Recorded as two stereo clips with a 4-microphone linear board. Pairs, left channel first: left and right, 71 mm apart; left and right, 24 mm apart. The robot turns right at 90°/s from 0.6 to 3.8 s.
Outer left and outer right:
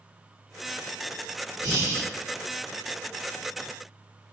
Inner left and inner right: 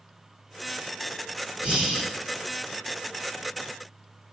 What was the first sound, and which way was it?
Breathing, 115° right.